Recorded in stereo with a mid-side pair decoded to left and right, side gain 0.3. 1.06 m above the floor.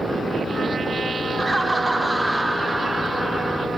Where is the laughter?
20° right, 3.5 m; by 3.7 s 20° left, 1.5 m.